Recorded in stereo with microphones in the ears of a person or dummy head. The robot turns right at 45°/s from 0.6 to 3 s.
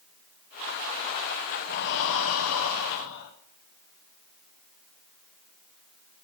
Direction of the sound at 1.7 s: 55° left.